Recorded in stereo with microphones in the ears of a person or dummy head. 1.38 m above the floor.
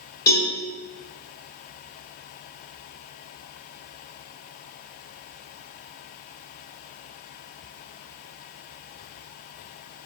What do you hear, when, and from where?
0.3 s a cowbell: 15° left (ahead or behind), 0.9 m